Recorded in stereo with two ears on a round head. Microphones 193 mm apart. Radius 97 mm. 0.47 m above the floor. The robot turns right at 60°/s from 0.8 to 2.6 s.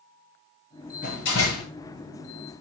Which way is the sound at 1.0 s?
40° left.